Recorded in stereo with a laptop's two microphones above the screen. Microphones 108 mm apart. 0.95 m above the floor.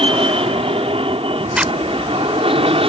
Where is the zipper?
10° right (ahead or behind).